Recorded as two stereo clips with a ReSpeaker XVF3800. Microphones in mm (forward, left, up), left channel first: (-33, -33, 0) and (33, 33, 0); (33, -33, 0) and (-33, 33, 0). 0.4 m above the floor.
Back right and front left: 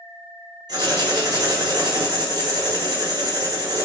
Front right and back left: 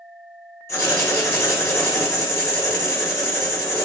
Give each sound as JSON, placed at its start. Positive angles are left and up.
{"t": 0.7, "sound": "writing", "azimuth_deg": 15, "distance_m": 1.6}